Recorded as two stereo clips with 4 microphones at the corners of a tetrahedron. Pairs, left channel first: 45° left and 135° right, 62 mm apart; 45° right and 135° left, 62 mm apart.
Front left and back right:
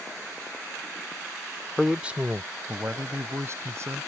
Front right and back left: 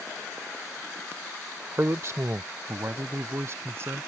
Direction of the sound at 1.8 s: 135° left.